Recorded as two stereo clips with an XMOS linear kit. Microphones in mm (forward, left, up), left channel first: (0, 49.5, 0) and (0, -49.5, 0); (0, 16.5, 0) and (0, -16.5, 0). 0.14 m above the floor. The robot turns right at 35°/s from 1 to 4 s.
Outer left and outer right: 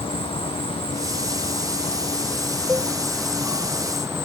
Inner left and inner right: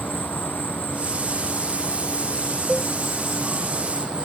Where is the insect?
105° left; by 4.3 s 150° right.